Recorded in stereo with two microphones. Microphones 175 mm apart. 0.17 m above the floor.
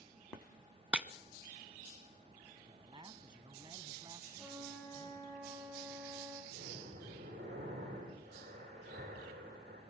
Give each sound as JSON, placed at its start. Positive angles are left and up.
{"t": 0.9, "sound": "breaking glass", "side_deg": -5, "distance_m": 0.9}
{"t": 2.7, "sound": "a man speaking", "side_deg": -25, "distance_m": 1.1}
{"t": 4.4, "sound": "a flute", "side_deg": -10, "distance_m": 8.0}
{"t": 6.5, "sound": "breathing", "side_deg": -75, "distance_m": 10.0}